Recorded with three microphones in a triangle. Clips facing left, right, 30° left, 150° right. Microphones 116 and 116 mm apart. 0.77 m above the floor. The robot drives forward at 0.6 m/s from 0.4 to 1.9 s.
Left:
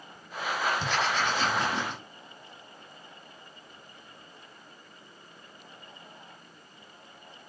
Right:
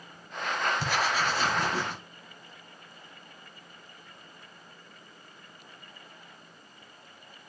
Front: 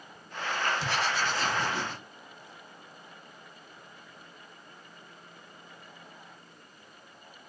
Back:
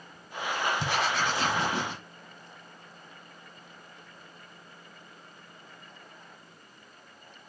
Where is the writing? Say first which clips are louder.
Even, back 2 dB; 170° right, 1.0 m; by 2.0 s 175° right, 1.6 m.